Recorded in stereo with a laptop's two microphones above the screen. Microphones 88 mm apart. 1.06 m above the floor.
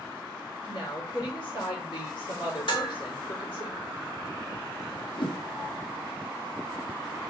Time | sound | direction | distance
0.7 | a woman speaking | 70° left (ahead or behind) | 2.5 m
2.7 | dishes clattering | 70° left (ahead or behind) | 2.5 m
5.2 | a whoosh | 65° left (ahead or behind) | 0.6 m